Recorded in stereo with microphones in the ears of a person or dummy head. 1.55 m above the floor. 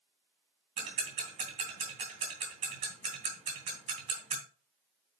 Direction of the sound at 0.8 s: 40° right (ahead or behind).